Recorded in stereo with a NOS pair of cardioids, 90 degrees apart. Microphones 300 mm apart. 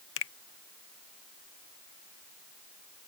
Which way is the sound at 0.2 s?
45° left.